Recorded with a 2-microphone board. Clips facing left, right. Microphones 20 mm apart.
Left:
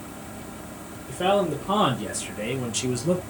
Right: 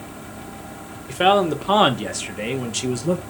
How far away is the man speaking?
About 1.4 m.